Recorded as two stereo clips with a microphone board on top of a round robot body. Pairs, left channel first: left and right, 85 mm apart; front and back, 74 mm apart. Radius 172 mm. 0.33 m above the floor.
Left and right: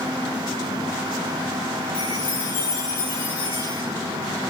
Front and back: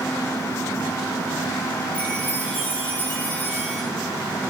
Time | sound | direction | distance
1.9 | a chime | 65° left | 6.5 m